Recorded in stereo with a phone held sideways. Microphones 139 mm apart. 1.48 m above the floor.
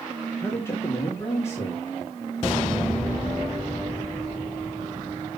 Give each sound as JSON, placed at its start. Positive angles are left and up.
{"t": 0.4, "sound": "a man speaking", "side_deg": 20, "distance_m": 1.8}